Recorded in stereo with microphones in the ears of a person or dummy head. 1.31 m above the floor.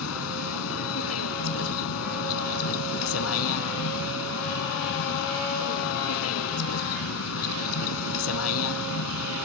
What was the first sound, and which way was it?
A vehicle, 90° left.